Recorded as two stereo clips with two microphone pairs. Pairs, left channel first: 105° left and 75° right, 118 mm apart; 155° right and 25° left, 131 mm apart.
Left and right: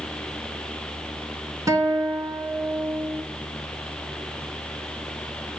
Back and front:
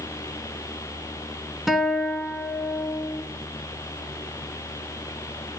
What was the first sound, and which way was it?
A guitar, 60° right.